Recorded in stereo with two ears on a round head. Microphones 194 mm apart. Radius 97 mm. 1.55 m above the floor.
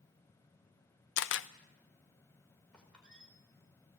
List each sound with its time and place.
1.2 s a camera shutter: 60° left (ahead or behind), 0.7 m
2.7 s a squeak: 5° left (ahead or behind), 5 m